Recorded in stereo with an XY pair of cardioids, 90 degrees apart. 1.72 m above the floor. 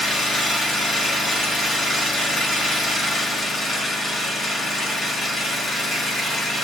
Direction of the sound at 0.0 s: 60° left.